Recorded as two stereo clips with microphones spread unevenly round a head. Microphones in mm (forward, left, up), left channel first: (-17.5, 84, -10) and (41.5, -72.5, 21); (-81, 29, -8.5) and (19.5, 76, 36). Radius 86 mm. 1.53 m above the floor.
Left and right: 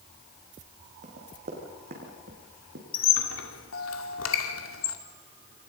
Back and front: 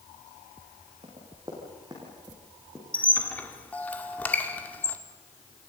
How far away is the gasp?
No gasp in this recording.